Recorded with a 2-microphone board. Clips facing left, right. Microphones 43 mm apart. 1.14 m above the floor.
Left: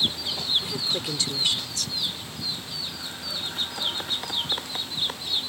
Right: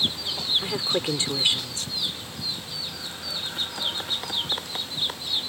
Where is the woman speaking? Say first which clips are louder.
Right 3 dB; 30° right (ahead or behind).